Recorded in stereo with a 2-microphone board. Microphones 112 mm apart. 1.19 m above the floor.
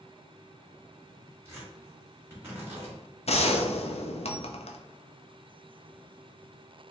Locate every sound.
1.4 s tearing paper: 20° right (ahead or behind), 2.0 m
3.3 s a gunshot: 65° left (ahead or behind), 0.5 m